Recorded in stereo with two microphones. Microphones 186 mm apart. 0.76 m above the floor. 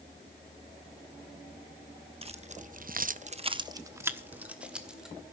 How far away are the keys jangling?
About 0.9 m.